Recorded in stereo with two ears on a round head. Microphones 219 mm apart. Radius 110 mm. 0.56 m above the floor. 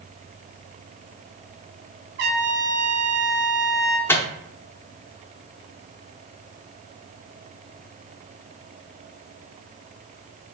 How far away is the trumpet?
About 1.1 m.